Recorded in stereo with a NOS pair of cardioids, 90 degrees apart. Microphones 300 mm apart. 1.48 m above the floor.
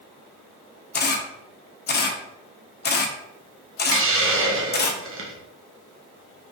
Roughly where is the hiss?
Ahead right.